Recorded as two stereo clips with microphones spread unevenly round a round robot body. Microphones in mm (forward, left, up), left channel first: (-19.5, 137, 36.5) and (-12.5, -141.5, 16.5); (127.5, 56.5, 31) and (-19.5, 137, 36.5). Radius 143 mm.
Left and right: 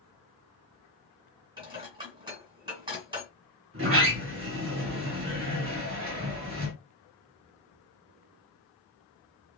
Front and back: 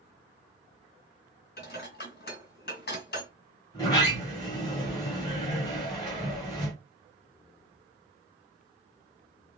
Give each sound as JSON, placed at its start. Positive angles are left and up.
{"t": 1.6, "sound": "dishes clattering", "azimuth_deg": -15, "distance_m": 1.9}
{"t": 3.7, "sound": "a sliding door", "azimuth_deg": -95, "distance_m": 1.4}